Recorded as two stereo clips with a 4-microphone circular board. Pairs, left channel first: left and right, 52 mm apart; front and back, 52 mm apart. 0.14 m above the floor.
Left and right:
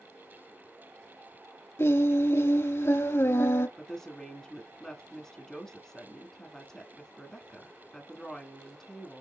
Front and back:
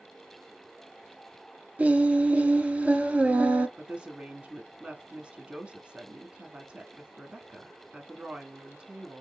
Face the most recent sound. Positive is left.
turn(degrees=160)